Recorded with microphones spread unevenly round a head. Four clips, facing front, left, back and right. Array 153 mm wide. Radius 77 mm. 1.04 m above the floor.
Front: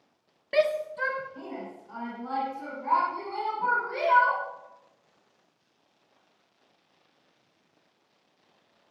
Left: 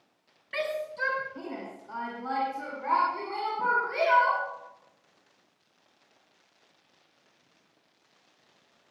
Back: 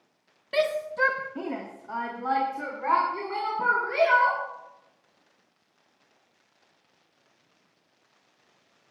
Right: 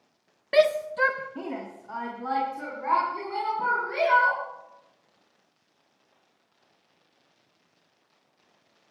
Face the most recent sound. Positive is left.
turn(degrees=-170)